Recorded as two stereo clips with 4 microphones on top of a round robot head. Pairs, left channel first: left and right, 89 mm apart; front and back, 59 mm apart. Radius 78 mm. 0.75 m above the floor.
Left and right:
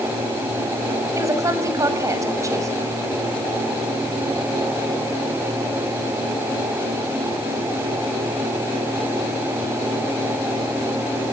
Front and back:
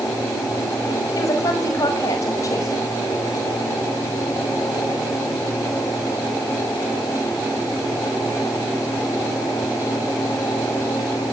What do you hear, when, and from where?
1.1 s a woman speaking: 35° right, 6 m